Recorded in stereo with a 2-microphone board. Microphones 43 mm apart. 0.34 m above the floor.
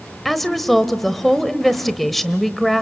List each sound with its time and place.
0.2 s a woman speaking: centre (ahead or behind), 1.1 m